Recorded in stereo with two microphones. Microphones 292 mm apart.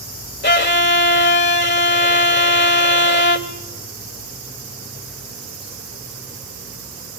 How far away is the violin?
About 1.5 m.